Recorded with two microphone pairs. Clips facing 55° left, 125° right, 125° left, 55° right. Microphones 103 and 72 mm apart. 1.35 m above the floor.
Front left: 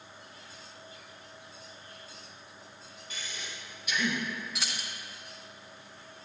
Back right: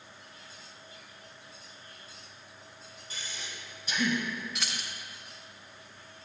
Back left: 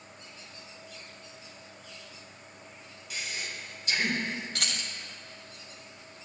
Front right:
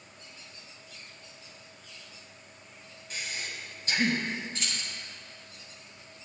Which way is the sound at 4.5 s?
145° left.